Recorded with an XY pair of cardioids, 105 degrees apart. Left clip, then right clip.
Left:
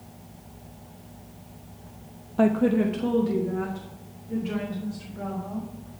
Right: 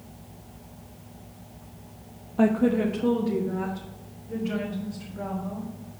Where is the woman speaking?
15° left, 0.7 m; by 6.0 s 20° left, 5 m.